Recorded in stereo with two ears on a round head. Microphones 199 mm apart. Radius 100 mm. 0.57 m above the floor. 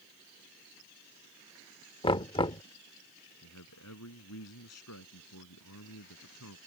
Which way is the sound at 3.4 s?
80° left.